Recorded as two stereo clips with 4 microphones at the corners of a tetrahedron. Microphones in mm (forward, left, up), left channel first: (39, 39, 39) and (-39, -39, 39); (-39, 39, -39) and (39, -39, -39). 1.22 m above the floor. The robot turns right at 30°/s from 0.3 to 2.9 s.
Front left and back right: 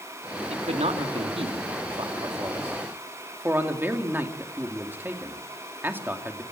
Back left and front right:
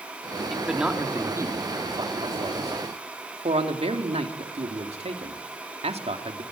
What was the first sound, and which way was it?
A man speaking, 135° right.